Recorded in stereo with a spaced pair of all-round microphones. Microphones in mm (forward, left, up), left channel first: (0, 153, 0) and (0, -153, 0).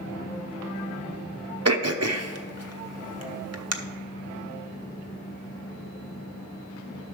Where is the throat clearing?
55° right (ahead or behind), 0.8 m.